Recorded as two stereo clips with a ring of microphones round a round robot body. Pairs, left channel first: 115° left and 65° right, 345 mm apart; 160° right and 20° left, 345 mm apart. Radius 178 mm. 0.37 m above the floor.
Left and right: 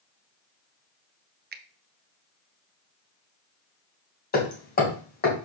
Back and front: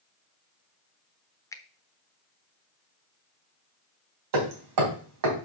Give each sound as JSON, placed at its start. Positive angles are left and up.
{"t": 1.5, "sound": "a finger snap", "azimuth_deg": -85, "distance_m": 0.9}
{"t": 4.3, "sound": "hammering", "azimuth_deg": 50, "distance_m": 3.0}